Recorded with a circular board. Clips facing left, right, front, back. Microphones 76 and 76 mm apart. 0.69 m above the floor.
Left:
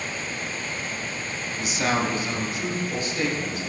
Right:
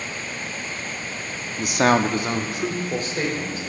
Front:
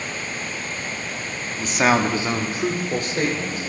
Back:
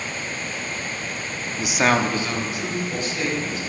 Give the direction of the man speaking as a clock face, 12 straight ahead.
4 o'clock.